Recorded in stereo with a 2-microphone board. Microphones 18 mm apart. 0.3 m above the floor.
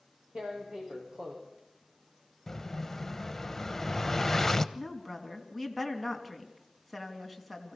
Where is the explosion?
20° left (ahead or behind), 0.8 m.